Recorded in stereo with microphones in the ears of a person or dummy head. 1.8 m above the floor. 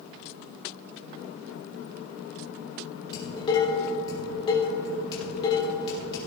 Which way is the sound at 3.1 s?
25° left (ahead or behind).